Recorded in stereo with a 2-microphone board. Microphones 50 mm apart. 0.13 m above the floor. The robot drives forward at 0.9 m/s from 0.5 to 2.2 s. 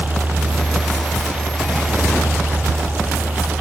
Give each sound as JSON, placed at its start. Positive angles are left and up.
{"t": 0.0, "sound": "a helicopter", "side_deg": -30}